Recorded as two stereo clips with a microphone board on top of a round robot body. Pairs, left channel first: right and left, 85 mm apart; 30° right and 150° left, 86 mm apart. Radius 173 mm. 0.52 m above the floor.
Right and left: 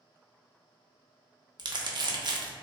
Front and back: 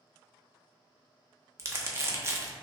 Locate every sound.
1.6 s crumpling: 100° left, 0.9 m